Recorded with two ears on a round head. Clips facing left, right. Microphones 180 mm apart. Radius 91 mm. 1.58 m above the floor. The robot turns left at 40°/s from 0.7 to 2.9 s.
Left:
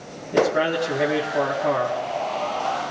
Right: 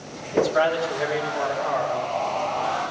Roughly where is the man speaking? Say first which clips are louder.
Left 1 dB; behind left.